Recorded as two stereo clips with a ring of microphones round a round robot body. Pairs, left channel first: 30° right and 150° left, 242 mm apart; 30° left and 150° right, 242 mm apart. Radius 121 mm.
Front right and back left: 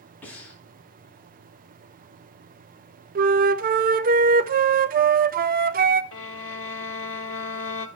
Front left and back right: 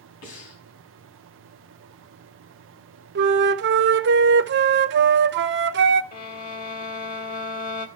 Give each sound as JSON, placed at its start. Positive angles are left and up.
{"t": 0.2, "sound": "breathing", "azimuth_deg": 55, "distance_m": 3.5}
{"t": 3.1, "sound": "a flute", "azimuth_deg": -170, "distance_m": 0.5}
{"t": 6.1, "sound": "a violin", "azimuth_deg": -20, "distance_m": 1.4}